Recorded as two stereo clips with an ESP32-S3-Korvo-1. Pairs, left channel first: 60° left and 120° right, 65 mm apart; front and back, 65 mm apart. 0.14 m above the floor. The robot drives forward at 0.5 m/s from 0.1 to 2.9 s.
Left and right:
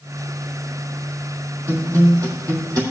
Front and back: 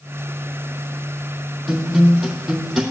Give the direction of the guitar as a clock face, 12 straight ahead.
3 o'clock.